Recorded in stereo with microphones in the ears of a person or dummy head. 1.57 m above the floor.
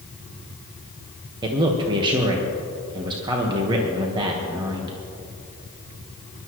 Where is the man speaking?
25° right (ahead or behind), 1.4 m.